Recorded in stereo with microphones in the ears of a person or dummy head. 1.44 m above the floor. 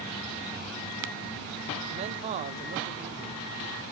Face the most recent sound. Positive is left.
turn(degrees=-35)  # may be behind; listen again after turning